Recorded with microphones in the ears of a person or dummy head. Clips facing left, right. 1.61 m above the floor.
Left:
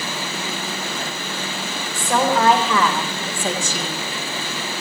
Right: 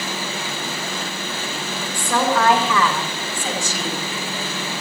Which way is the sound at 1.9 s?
20° left (ahead or behind).